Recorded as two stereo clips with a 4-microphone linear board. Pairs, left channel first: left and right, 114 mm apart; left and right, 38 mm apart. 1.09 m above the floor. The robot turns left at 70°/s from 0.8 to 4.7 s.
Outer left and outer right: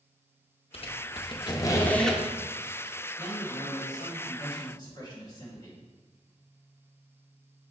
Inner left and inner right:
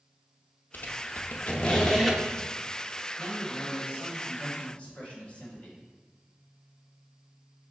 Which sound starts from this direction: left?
A squeak, at 0.7 s.